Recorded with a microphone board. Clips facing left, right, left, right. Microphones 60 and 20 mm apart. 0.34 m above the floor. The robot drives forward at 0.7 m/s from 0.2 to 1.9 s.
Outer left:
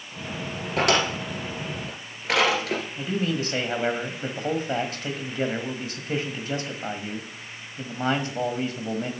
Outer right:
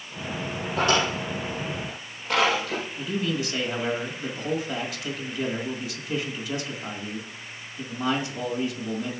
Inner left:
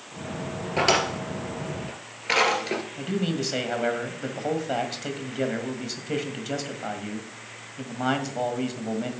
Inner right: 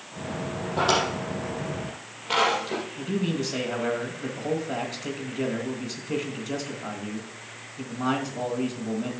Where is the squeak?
No squeak in this recording.